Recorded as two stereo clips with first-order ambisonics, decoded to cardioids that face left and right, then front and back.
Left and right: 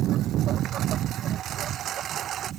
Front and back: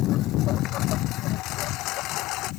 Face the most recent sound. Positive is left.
turn(degrees=-30)